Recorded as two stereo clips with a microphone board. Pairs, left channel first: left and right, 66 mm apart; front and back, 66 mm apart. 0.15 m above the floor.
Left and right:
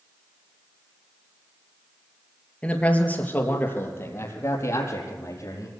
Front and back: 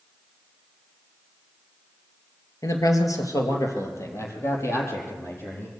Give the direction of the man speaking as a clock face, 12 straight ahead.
11 o'clock.